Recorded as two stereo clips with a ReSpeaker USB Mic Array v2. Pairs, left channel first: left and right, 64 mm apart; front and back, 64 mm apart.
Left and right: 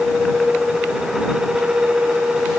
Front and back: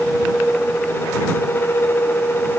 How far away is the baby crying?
I don't hear a baby crying.